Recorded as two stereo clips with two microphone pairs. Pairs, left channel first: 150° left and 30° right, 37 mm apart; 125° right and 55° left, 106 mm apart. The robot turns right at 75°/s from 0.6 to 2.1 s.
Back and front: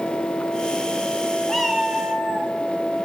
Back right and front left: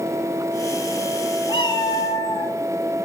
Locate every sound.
1.5 s a cat meowing: 135° right, 1.0 m; by 2.5 s 85° right, 1.0 m